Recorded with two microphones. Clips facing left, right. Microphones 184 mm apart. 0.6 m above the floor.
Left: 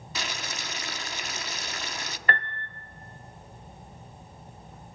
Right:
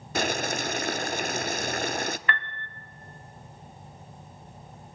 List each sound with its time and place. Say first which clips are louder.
0.1 s boiling: right 10 dB; 50° right (ahead or behind), 0.7 m
2.3 s a piano: left 2 dB; 40° left (ahead or behind), 0.7 m